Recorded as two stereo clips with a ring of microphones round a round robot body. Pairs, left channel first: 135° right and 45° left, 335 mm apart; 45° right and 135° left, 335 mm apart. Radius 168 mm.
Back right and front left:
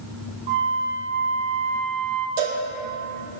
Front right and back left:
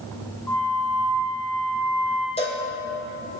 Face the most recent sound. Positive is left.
turn(degrees=30)